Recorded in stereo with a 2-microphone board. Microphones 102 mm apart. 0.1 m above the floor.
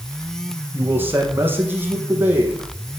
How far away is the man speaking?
About 5 m.